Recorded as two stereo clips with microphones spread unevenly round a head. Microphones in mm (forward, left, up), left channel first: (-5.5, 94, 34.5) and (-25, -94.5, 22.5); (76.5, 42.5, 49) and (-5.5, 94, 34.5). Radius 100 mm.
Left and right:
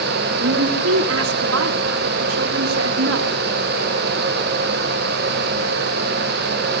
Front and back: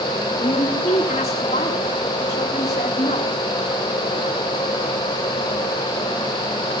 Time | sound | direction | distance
0.4 | a woman speaking | 75° right | 2.5 m